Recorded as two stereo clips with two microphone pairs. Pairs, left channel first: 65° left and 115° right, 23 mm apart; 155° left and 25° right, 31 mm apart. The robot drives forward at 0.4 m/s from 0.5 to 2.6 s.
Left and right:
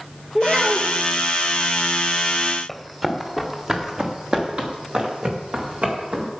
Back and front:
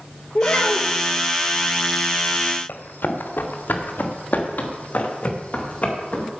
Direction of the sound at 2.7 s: 160° left.